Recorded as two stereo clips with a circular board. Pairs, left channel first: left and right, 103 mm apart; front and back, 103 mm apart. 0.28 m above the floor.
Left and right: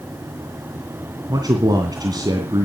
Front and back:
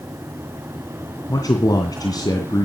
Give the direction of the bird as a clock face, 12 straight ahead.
No bird in this recording.